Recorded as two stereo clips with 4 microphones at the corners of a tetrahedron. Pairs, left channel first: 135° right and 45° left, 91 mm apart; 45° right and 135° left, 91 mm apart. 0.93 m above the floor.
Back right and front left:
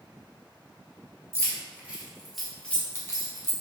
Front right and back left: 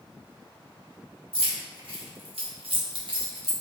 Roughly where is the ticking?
No ticking in this recording.